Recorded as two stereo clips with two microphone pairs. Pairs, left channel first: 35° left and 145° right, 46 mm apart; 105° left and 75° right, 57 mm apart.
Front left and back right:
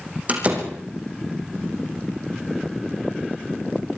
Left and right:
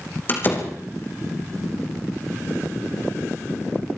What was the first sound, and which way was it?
A door slam, 160° left.